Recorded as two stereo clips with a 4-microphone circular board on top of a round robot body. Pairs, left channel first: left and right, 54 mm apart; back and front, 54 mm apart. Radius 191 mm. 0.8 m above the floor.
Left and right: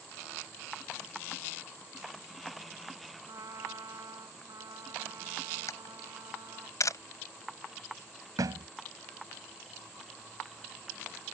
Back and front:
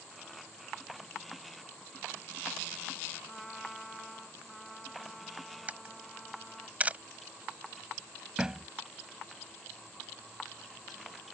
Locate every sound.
3.3 s a trumpet: 95° right
5.7 s a camera shutter: 65° left
8.4 s a thud: 80° right